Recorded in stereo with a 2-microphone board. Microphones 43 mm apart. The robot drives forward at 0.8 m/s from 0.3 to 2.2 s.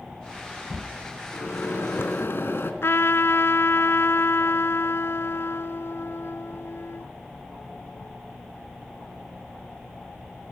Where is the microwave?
70° left (ahead or behind), 3 m; by 2.7 s 60° left (ahead or behind), 3 m.